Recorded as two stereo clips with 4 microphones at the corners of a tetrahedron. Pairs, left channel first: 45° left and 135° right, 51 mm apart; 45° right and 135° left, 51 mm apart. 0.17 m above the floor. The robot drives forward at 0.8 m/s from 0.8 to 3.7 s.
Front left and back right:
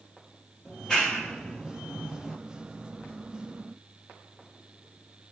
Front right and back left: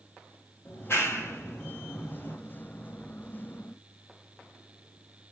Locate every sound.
0.7 s a clap: 25° right, 4.5 m; by 2.4 s 35° right, 3.5 m